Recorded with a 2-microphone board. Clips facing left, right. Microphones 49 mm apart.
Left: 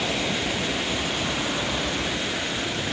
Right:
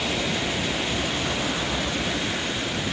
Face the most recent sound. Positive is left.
No sound to turn to.